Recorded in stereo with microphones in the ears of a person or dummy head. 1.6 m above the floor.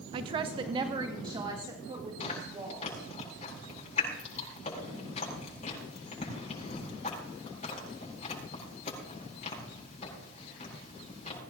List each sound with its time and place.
0.1 s a woman speaking: 30° right (ahead or behind), 0.7 m; by 3.0 s 25° right (ahead or behind), 4 m
2.2 s chewing: 35° left (ahead or behind), 7.5 m